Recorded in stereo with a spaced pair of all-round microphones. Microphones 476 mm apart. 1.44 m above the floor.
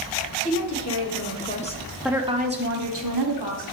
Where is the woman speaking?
35° left (ahead or behind), 1.5 m; by 3.6 s 65° right (ahead or behind), 1.0 m.